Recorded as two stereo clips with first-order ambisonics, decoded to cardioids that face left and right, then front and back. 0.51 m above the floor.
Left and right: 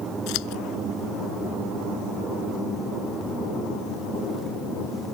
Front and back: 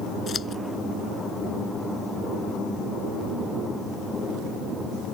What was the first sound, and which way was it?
Scissors, 65° left.